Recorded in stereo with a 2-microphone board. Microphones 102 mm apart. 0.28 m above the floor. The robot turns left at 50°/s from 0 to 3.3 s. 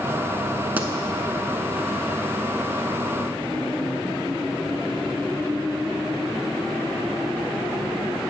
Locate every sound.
0.8 s a pop: 15° right (ahead or behind), 0.7 m; by 0.9 s 25° right (ahead or behind), 0.7 m